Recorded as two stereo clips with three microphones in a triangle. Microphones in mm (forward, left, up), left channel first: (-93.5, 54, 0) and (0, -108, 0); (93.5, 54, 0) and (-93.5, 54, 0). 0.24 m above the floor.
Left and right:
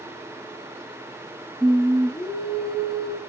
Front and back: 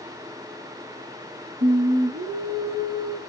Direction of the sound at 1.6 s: 155° right.